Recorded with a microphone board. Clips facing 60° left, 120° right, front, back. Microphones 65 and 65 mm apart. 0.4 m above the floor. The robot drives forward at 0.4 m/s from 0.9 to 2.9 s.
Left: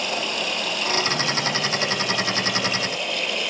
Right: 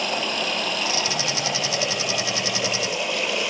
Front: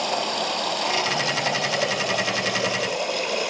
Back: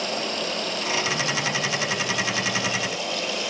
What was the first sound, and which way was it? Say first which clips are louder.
Running water: right 1 dB, front 3 dB; 25° right.